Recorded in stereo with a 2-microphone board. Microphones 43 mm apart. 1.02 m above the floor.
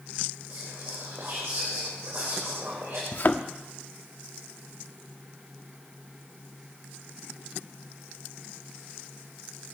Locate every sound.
0.5 s whispering: 75° right (ahead or behind), 3.5 m
3.1 s a thud: 50° left (ahead or behind), 0.9 m